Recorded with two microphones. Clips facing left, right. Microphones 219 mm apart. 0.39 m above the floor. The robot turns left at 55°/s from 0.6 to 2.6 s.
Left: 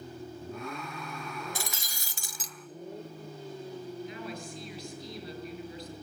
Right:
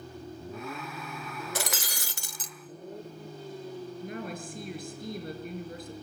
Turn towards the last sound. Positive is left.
turn(degrees=-50)  # may be behind; listen again after turning